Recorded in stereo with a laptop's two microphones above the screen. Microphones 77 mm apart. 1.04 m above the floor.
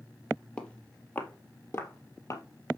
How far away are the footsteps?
About 1.9 m.